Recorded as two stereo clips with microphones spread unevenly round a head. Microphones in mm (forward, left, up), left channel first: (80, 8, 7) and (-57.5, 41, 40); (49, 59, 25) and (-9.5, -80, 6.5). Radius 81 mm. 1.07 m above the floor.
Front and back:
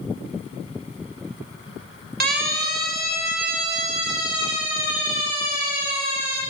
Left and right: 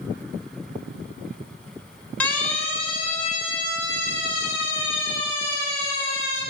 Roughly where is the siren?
Behind left.